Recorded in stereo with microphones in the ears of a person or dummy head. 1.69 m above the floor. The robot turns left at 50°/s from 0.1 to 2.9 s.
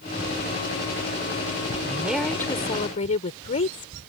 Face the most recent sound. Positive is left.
turn(degrees=145)